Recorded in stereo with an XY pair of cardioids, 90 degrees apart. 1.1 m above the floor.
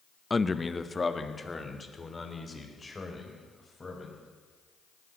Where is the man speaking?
20° left, 0.8 m.